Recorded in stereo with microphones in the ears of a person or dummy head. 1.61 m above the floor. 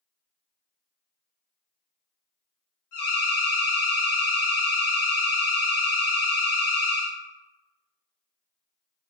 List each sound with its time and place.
2.9 s an alarm: 60° left (ahead or behind), 1.3 m